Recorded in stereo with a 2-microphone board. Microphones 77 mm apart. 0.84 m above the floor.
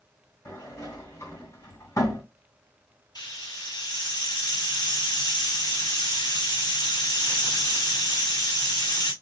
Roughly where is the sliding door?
Left.